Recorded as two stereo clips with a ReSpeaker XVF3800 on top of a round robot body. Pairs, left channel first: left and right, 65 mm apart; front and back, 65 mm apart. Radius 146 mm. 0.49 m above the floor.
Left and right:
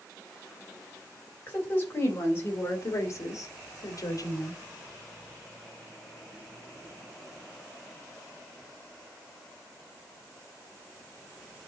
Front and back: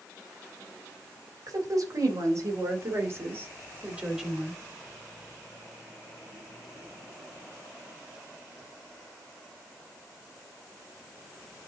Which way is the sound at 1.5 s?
150° left.